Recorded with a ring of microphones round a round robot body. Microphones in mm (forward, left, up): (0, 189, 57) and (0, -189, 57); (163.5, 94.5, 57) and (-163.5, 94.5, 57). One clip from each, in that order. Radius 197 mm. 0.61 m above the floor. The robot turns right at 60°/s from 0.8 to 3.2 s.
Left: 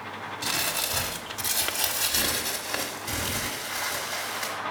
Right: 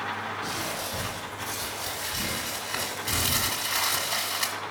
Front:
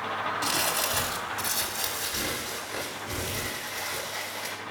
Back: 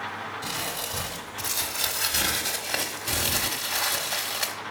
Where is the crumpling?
45° left, 1.3 m; by 4.5 s 170° right, 1.3 m.